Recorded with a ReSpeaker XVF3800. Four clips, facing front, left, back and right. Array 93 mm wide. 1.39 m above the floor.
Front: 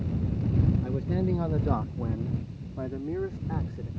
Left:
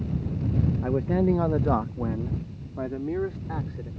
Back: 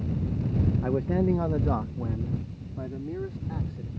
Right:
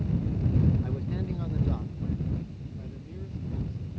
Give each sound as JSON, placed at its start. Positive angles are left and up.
{"t": 0.8, "sound": "a man speaking", "azimuth_deg": 135}